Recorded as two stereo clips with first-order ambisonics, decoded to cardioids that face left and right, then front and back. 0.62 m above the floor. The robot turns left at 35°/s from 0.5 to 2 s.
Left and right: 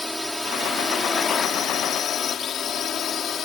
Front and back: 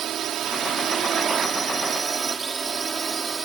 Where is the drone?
170° left; by 3.5 s 120° left.